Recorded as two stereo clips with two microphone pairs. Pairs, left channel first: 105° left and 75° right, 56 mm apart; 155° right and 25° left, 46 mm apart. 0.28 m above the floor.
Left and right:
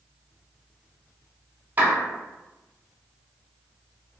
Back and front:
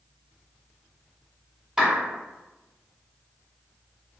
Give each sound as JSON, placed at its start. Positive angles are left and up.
{"t": 1.8, "sound": "a clap", "azimuth_deg": -45, "distance_m": 1.3}